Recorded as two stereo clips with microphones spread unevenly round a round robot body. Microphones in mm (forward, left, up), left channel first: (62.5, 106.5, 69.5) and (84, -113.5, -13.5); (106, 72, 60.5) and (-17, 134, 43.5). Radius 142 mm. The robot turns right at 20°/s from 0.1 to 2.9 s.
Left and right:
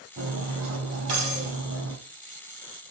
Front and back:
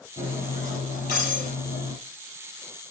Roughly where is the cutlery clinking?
Right.